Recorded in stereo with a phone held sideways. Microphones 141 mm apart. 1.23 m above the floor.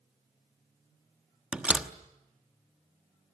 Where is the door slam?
10° right (ahead or behind), 1.1 m.